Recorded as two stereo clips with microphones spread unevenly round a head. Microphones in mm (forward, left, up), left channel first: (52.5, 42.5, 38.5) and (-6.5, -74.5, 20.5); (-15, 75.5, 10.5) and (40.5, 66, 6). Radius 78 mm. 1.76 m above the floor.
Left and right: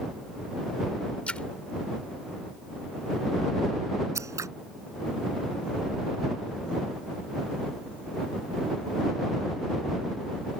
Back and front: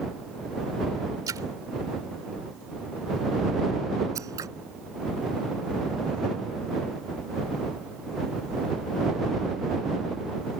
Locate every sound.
1.3 s a splash: 15° right
4.2 s scissors: 45° right